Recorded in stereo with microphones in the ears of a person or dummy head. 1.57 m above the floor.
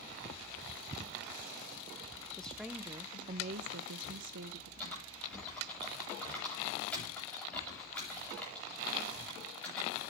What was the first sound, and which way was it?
A woman speaking, 10° left (ahead or behind).